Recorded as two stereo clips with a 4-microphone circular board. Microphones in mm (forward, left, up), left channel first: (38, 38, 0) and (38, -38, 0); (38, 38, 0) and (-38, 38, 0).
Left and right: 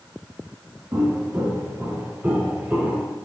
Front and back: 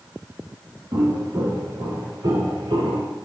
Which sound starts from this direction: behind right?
Footsteps, at 0.9 s.